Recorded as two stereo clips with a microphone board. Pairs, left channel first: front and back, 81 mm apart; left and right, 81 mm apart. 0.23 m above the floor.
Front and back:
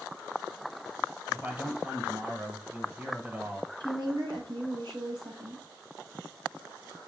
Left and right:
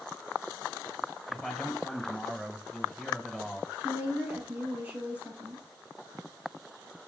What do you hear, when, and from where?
1.3 s a man speaking: 170° left, 1.2 m
3.8 s a woman speaking: 160° right, 5 m